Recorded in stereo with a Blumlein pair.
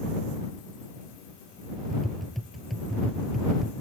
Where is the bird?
No bird in this recording.